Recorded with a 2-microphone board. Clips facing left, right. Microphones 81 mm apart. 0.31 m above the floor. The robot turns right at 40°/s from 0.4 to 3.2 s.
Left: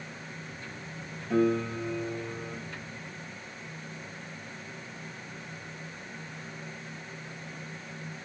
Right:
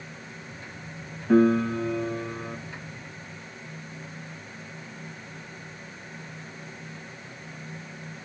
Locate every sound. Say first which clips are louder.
1.3 s a piano: right 6 dB; 120° right, 1.4 m; by 2.6 s 70° right, 1.4 m